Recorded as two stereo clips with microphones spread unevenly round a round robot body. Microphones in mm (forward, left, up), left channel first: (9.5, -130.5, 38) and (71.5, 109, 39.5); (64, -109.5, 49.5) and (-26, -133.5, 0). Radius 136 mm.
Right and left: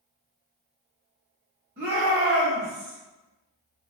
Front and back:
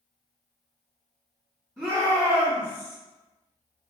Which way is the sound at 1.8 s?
120° left.